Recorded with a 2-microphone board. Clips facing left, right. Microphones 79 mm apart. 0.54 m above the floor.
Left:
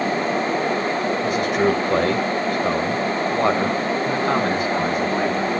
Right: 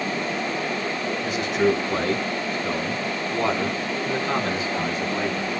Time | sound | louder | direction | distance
1.2 | a man speaking | left 1 dB | 50° left (ahead or behind) | 2.5 m